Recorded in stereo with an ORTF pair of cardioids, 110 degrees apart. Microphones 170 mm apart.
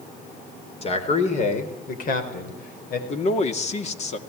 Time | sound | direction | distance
0.8 | a man speaking | 35° left | 4.5 m
3.1 | a man speaking | 40° left | 2.5 m